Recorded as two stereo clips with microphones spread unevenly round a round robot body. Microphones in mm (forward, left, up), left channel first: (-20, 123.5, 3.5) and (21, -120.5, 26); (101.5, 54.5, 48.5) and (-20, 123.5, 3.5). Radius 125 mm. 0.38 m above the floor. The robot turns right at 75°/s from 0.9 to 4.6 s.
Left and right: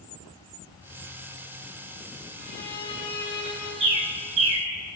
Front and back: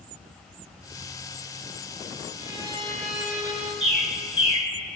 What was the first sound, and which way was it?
A violin, 15° left.